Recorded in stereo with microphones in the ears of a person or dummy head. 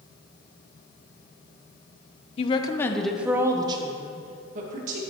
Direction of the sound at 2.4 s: 35° left (ahead or behind).